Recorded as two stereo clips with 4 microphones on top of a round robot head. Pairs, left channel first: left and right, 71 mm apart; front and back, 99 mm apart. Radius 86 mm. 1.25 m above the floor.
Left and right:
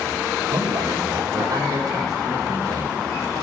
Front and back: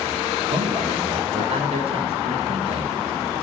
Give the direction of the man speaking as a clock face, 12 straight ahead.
5 o'clock.